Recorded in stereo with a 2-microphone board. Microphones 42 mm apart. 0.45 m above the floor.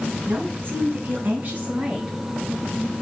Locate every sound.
0.3 s a woman speaking: 55° right (ahead or behind), 6 m; by 2.2 s 25° right (ahead or behind), 5.5 m